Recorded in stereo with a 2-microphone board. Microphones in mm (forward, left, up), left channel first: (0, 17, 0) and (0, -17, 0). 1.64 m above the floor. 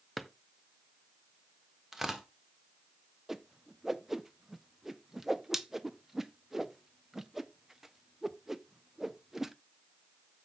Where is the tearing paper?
15° right (ahead or behind), 1.4 m.